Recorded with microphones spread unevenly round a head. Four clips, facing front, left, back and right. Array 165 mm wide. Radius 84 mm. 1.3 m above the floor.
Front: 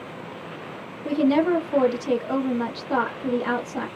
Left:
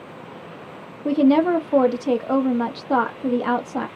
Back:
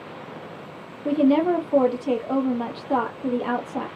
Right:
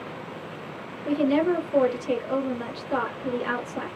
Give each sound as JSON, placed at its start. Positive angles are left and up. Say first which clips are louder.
{"t": 1.1, "sound": "a woman speaking", "louder": "left 6 dB, back 1 dB", "azimuth_deg": 100, "distance_m": 0.7}